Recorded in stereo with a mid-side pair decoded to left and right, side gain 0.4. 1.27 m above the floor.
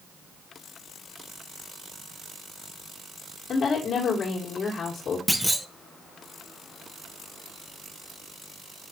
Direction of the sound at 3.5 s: 55° left.